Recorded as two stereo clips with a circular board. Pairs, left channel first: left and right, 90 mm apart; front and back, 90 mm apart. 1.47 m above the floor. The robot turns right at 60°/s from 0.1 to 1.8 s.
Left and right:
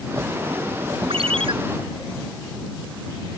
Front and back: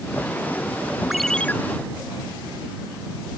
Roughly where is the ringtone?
Right.